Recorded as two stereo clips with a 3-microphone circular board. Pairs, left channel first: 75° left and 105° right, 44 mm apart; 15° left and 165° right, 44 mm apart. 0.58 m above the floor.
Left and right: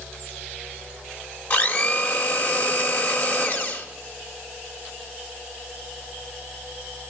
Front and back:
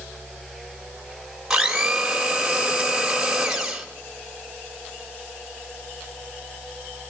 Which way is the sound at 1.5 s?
120° left.